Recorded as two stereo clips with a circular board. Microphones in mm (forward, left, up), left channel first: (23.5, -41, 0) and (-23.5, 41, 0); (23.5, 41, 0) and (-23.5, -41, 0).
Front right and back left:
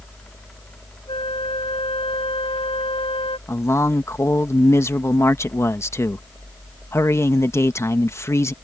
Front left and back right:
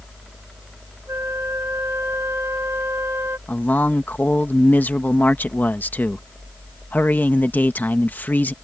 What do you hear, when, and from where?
1.1 s a flute: 55° right
3.5 s a man speaking: 5° right